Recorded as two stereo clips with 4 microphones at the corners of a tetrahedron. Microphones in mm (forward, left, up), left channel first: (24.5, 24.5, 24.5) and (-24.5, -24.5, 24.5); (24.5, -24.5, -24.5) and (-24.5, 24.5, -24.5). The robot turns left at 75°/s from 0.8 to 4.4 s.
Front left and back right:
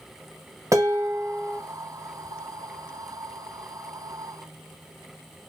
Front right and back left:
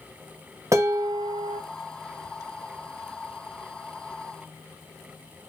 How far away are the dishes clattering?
About 0.7 m.